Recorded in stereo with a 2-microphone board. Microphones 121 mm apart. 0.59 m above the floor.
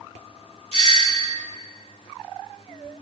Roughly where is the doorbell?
Right.